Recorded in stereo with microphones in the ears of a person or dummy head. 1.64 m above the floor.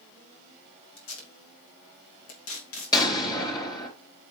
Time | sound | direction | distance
1.0 | tape being pulled | 90° left | 2.5 m
2.9 | an explosion | 30° left (ahead or behind) | 4 m